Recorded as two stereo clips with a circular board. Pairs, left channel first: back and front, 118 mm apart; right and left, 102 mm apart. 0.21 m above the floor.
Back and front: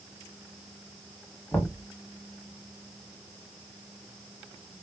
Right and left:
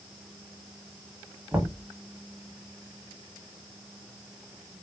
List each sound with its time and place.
1.5 s knocking: 135° left, 0.9 m